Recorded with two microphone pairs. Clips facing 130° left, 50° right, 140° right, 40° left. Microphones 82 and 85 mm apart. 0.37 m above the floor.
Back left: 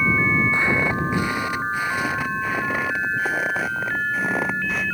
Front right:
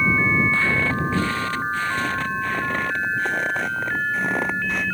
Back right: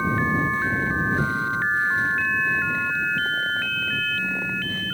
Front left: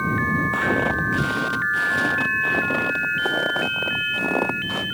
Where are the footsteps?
60° left; by 4.9 s 40° left.